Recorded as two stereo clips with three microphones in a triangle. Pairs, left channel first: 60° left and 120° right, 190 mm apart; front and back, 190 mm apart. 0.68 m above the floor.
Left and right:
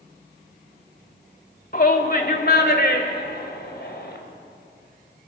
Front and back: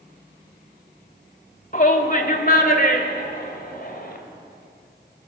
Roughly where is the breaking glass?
I don't hear breaking glass.